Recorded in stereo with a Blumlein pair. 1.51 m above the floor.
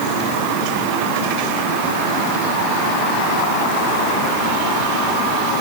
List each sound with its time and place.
Only background noise.